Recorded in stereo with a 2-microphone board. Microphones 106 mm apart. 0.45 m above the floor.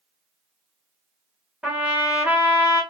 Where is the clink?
No clink in this recording.